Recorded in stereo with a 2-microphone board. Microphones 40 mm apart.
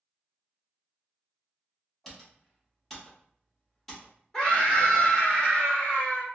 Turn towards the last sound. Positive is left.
turn(degrees=20)  # may be behind; listen again after turning